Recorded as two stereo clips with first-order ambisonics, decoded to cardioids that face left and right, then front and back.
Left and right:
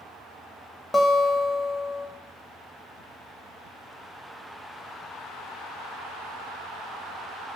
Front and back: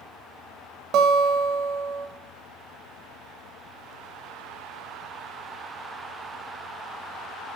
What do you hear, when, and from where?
0.9 s a guitar: 165° left, 0.7 m